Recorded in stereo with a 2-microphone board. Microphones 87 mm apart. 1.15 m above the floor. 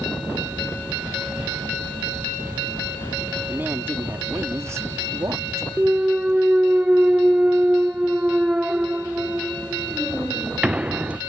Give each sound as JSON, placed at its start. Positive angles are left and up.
{"t": 3.5, "sound": "a woman speaking", "side_deg": -20}
{"t": 5.8, "sound": "a clunk", "side_deg": -15}